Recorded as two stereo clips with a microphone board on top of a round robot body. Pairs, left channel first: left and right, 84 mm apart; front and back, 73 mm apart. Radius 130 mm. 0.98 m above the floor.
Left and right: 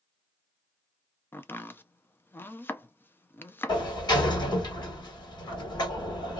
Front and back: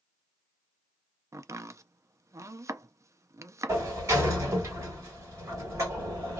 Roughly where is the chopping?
Behind left.